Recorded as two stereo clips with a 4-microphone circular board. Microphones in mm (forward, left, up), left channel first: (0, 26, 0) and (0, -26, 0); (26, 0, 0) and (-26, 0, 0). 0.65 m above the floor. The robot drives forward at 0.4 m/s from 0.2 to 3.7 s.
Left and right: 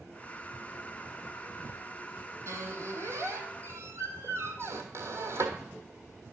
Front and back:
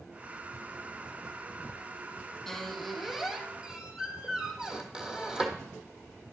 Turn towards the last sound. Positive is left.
turn(degrees=-110)